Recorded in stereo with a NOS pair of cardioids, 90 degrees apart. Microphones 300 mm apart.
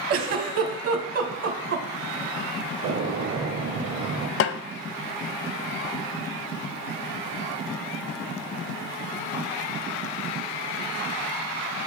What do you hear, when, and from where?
0.1 s a giggle: 55° right, 1.3 m
2.8 s a gunshot: 55° right, 1.2 m
4.4 s a snare drum: 50° left, 0.6 m